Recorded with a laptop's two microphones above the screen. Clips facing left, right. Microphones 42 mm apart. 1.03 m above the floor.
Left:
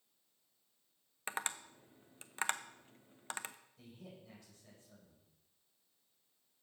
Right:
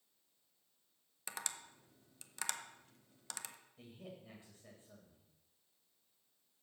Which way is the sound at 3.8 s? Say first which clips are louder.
Right 3 dB; 25° right (ahead or behind).